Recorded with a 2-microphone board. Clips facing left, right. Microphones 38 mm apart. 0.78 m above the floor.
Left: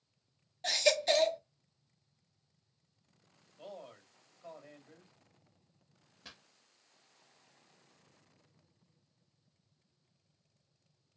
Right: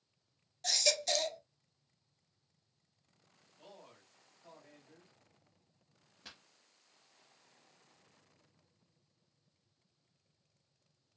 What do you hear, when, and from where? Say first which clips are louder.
0.6 s a baby crying: left 5 dB; 30° left (ahead or behind), 0.6 m
3.6 s a man speaking: left 8 dB; 40° left (ahead or behind), 1.9 m
6.2 s a pop: left 1 dB; 5° right (ahead or behind), 0.6 m